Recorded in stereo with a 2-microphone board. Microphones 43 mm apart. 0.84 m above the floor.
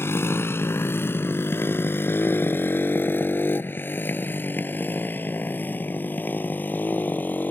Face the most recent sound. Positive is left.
turn(degrees=45)  # may be behind; listen again after turning